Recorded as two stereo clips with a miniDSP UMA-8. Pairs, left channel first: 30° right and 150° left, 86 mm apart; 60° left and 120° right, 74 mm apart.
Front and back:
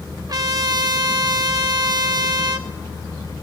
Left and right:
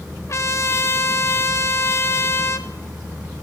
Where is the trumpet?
110° left, 0.6 m.